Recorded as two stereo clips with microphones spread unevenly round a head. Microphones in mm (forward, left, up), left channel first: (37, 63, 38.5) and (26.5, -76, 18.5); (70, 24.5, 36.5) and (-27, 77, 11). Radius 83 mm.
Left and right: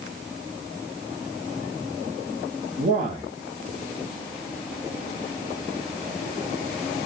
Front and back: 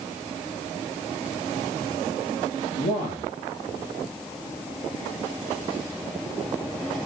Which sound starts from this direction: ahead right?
A man speaking, at 2.8 s.